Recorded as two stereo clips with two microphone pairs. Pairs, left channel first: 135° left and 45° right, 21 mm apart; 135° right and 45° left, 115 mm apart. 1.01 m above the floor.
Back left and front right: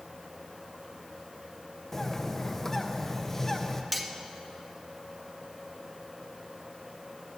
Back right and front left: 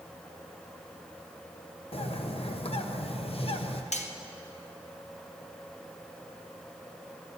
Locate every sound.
1.9 s a bird: 155° right, 0.7 m
3.9 s cutlery clinking: 130° right, 0.7 m